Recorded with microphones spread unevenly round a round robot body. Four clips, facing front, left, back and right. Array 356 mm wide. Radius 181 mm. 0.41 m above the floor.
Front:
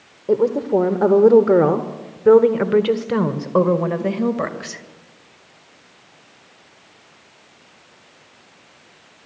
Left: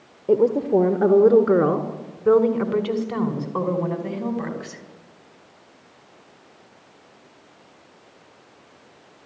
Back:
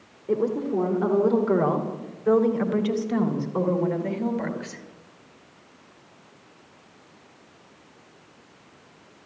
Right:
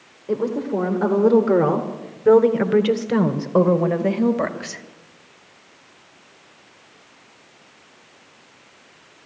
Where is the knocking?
I don't hear knocking.